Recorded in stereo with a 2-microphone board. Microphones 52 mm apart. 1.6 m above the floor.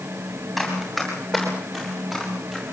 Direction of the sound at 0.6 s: Centre (ahead or behind).